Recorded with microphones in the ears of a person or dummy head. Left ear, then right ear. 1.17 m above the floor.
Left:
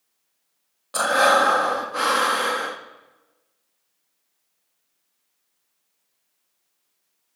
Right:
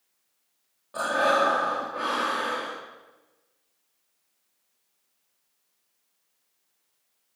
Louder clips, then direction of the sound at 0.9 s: Left 6 dB; 75° left (ahead or behind).